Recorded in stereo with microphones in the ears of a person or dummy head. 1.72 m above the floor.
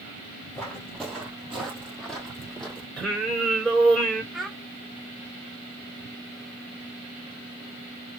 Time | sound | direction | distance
0.5 | footsteps | 5° left (ahead or behind) | 2 m
3.0 | singing | centre (ahead or behind) | 3 m
4.3 | a child speaking | centre (ahead or behind) | 1.1 m